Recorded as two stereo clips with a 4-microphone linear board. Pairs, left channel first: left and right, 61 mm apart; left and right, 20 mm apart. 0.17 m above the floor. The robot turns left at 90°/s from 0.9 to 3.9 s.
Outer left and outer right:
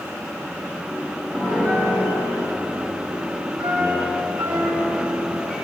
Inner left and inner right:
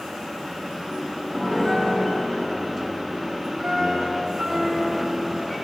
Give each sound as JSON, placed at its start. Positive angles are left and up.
{"t": 1.3, "sound": "a piano", "azimuth_deg": -175, "distance_m": 4.0}